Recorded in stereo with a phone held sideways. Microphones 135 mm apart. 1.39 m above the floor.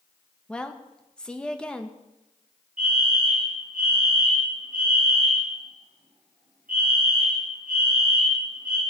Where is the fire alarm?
75° right (ahead or behind), 7.5 m.